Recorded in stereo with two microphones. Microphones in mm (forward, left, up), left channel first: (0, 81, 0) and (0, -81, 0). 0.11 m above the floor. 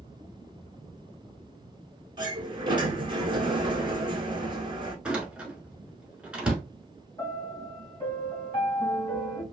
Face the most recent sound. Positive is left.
turn(degrees=30)  # may be behind; listen again after turning